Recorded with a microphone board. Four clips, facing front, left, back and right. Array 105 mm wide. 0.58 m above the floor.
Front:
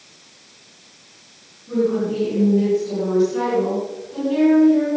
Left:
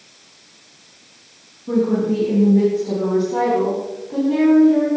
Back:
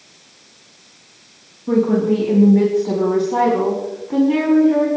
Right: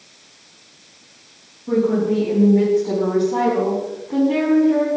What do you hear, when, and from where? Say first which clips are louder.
1.7 s a woman speaking: even, back 4 dB; 175° right, 5 m; by 4.9 s 155° right, 6.5 m